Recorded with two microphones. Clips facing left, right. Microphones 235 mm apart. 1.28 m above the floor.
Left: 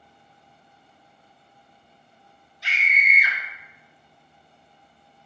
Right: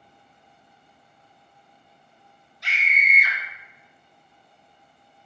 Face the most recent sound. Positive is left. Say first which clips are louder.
# even
turn(degrees=0)  # may be behind; listen again after turning